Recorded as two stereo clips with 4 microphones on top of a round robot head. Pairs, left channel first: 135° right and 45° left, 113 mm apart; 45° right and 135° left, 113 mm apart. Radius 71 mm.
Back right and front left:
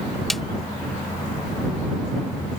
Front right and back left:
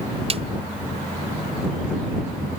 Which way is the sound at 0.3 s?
135° left.